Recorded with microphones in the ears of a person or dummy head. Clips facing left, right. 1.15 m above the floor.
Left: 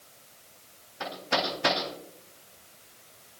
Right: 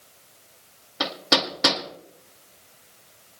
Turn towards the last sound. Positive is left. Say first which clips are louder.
# right 4 dB
turn(degrees=-75)  # may be behind; listen again after turning